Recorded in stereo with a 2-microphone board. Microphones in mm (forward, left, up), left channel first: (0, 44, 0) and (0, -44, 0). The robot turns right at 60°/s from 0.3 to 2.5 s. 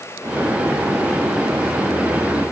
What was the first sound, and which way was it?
Only background noise.